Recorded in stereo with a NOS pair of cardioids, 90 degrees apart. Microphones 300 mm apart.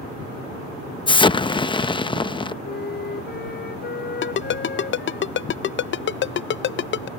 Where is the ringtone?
40° left.